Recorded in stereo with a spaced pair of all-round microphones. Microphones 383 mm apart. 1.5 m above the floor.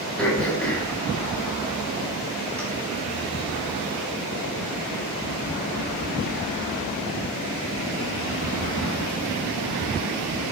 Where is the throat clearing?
Centre (ahead or behind), 4.5 m.